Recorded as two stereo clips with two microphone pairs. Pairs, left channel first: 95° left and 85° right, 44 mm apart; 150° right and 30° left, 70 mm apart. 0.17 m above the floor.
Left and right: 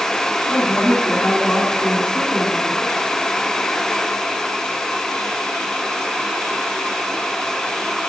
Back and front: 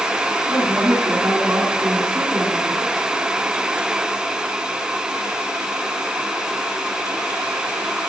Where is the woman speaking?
75° left, 2 m; by 3.1 s 70° left, 3.5 m.